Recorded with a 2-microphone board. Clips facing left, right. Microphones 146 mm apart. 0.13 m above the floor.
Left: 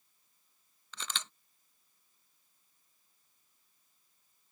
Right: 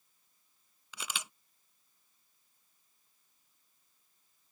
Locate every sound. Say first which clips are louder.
0.9 s a camera shutter: even; 10° right (ahead or behind)